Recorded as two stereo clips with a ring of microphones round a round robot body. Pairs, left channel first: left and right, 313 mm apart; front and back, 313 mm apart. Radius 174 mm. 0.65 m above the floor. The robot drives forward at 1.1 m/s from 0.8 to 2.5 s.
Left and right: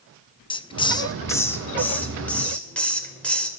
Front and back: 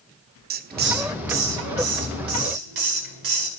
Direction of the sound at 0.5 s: 155° left.